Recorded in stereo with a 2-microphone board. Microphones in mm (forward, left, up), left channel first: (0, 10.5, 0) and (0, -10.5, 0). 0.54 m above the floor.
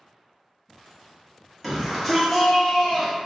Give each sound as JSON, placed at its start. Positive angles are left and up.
{"t": 1.6, "sound": "a shout", "side_deg": 0, "distance_m": 1.3}